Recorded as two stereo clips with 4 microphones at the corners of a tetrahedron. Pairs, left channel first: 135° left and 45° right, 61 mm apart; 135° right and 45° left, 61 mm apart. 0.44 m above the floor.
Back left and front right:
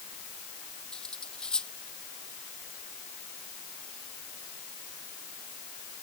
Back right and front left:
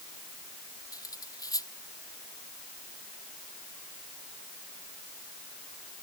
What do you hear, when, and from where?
0.9 s cutlery clinking: 145° right